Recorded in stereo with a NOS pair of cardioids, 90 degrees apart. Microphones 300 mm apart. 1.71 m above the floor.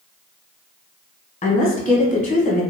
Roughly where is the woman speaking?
Ahead left.